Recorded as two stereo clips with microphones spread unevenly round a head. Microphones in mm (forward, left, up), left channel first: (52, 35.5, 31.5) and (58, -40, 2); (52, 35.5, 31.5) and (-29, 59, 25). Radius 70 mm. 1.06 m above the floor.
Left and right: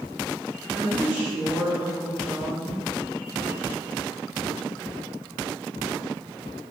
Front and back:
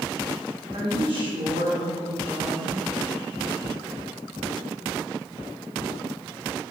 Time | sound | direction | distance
0.7 | a woman speaking | 165° right | 2.5 m